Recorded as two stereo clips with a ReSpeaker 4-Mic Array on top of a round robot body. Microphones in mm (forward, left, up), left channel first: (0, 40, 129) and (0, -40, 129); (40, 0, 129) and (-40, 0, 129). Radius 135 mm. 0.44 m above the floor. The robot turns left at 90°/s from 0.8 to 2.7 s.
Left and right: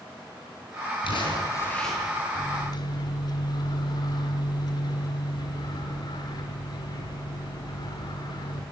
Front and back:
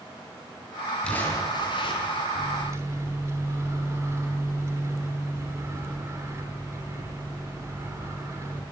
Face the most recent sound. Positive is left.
turn(degrees=125)